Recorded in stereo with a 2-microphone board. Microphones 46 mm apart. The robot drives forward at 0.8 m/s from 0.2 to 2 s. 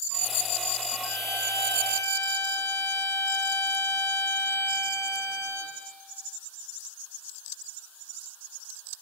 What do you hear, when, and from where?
1.0 s a violin: 80° left, 5.5 m; by 5.8 s 75° left (ahead or behind), 5.5 m